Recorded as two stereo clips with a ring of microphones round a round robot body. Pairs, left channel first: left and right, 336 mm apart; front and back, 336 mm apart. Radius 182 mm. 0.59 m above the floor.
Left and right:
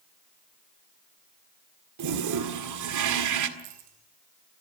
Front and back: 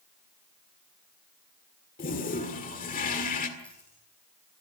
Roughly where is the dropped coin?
Right.